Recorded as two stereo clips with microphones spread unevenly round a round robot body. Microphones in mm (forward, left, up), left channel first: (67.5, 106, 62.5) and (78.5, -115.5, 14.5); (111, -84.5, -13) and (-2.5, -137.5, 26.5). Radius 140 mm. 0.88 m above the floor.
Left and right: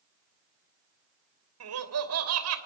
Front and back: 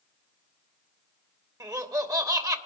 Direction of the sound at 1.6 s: 90° right.